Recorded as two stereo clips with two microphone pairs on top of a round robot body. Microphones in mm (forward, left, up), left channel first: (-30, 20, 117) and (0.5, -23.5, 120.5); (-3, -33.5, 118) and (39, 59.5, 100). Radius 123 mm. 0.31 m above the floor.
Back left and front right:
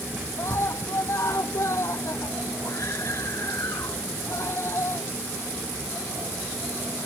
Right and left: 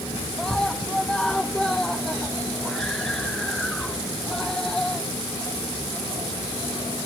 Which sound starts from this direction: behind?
A scream, at 0.4 s.